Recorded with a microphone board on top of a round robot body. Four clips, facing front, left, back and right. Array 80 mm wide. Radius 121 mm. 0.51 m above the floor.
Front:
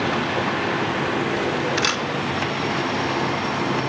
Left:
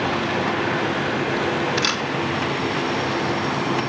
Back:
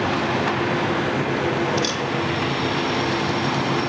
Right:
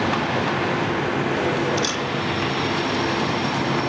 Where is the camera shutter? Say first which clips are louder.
Left 1 dB, even; 35° left, 1.9 m.